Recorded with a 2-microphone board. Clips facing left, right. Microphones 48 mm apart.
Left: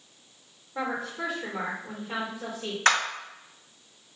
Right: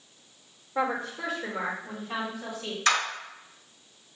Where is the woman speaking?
5° right (ahead or behind), 1.3 m; by 2.8 s 35° left (ahead or behind), 1.6 m.